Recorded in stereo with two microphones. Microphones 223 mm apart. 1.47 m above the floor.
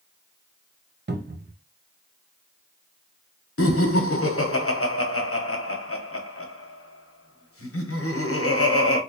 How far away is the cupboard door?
About 0.5 m.